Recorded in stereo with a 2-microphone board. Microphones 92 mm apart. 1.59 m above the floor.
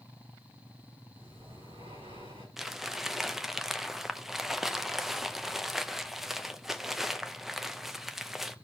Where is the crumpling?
5° right (ahead or behind), 0.6 m.